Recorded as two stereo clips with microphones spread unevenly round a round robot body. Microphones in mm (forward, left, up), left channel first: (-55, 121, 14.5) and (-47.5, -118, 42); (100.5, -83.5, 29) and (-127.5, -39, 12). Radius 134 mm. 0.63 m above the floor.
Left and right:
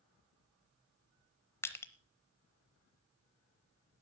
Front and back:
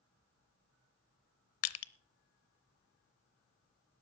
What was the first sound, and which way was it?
Crushing, 10° left.